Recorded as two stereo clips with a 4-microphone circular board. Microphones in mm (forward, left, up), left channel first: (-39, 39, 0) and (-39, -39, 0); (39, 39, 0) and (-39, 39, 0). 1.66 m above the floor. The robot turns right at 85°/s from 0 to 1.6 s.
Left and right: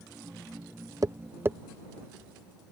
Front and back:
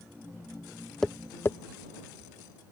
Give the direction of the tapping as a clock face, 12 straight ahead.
3 o'clock.